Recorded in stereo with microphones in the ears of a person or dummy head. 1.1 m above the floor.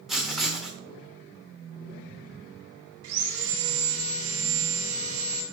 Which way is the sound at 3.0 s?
80° right.